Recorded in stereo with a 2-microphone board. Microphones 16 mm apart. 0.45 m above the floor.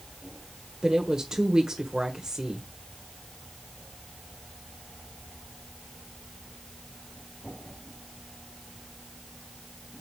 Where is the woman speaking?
45° right (ahead or behind), 1.5 m.